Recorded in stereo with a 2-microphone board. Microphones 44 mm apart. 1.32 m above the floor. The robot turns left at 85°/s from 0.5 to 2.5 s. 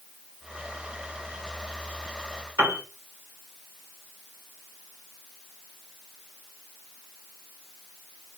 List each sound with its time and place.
2.6 s a piano: 85° right, 3 m